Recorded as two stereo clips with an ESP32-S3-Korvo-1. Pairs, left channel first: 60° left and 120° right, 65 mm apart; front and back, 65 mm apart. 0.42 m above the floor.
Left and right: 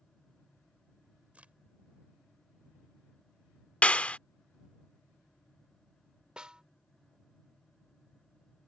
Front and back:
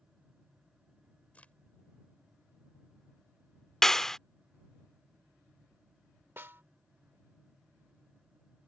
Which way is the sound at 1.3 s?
60° right.